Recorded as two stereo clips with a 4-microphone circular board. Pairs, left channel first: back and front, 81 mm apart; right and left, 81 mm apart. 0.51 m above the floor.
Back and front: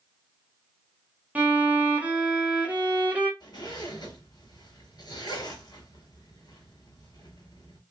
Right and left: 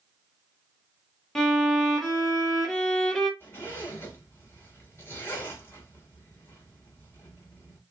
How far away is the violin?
About 0.8 m.